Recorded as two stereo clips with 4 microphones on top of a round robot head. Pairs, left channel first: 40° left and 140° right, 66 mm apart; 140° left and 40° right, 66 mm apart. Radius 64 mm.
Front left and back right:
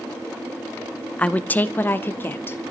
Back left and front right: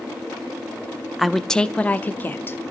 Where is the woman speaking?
40° left, 0.6 m; by 2.6 s 90° left, 1.1 m.